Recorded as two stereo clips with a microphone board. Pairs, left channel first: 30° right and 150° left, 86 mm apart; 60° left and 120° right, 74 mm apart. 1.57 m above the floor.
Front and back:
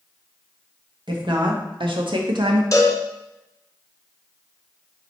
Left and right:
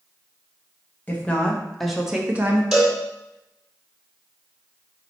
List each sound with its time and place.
1.1 s a woman speaking: 130° left, 1.1 m; by 2.6 s straight behind, 0.8 m
2.7 s a cowbell: 35° right, 1.5 m